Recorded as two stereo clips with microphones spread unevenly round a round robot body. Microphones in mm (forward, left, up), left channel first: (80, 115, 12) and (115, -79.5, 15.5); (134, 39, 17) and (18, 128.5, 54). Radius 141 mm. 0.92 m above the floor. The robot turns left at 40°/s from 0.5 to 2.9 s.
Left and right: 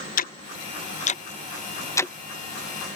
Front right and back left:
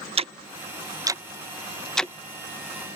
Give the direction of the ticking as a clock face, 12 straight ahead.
9 o'clock.